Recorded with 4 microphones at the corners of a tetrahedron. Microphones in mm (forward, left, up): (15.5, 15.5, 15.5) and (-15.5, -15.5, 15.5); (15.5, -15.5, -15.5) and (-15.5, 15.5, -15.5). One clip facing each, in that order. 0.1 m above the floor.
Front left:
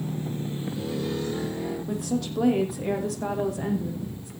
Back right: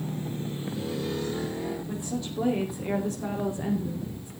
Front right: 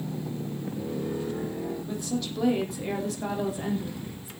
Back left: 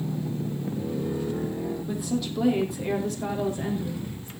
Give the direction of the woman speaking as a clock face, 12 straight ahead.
10 o'clock.